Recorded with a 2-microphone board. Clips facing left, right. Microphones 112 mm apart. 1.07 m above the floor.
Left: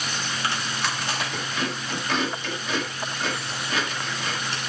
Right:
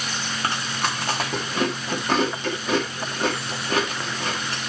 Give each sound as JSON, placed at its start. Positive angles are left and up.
{"t": 0.4, "sound": "chewing", "side_deg": -40, "distance_m": 1.7}